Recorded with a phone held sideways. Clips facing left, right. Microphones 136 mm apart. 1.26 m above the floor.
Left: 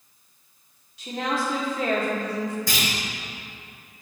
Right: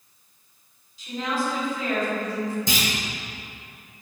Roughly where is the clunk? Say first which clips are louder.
Right 2 dB; right.